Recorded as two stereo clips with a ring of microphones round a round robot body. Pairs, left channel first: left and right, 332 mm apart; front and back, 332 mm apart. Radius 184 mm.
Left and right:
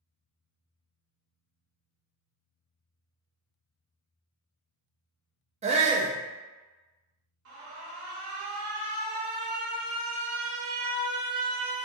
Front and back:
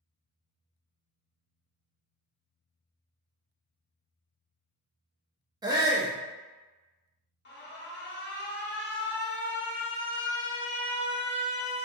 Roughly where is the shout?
Behind right.